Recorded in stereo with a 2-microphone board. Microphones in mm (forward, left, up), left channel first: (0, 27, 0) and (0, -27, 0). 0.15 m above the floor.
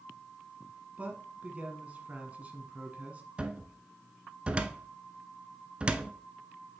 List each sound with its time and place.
1.0 s a man speaking: 25° right (ahead or behind), 1.3 m
3.4 s a cupboard door: 20° right (ahead or behind), 0.6 m